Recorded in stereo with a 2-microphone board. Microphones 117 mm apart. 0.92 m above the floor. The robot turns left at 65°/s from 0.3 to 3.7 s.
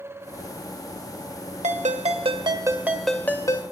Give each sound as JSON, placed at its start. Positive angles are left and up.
{"t": 1.6, "sound": "a ringtone", "azimuth_deg": -85, "distance_m": 1.5}